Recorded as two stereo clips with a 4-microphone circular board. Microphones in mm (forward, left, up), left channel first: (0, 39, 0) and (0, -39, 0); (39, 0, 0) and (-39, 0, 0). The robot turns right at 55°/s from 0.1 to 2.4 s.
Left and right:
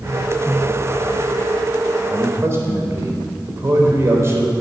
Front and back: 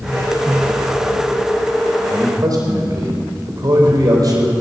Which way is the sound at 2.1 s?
165° right.